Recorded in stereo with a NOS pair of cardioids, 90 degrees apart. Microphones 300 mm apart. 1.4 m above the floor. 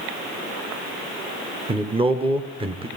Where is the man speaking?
20° right, 0.8 m.